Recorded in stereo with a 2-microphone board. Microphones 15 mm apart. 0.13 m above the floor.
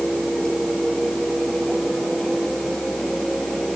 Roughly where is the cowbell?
No cowbell in this recording.